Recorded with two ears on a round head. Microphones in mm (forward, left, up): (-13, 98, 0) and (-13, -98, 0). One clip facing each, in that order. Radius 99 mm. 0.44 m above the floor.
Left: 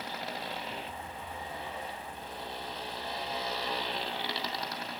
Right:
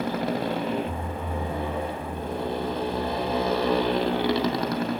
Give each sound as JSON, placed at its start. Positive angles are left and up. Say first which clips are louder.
{"t": 0.0, "sound": "a motorcycle", "louder": "right 14 dB", "side_deg": -45}